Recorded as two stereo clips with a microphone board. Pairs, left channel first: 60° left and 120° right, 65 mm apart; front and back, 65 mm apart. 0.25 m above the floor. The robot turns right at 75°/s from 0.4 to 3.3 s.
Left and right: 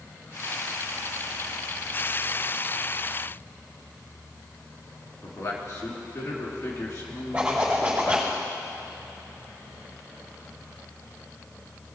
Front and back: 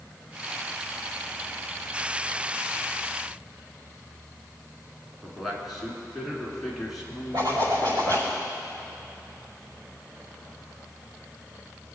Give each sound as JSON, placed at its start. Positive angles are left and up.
{"t": 5.2, "sound": "a man speaking", "azimuth_deg": 90, "distance_m": 3.0}
{"t": 7.3, "sound": "a zipper", "azimuth_deg": 165, "distance_m": 5.0}